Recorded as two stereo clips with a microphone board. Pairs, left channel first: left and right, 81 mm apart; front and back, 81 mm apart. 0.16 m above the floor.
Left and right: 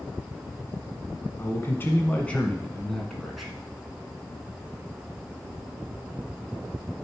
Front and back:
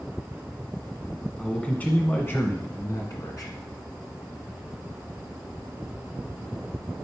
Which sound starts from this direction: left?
A man speaking, at 1.4 s.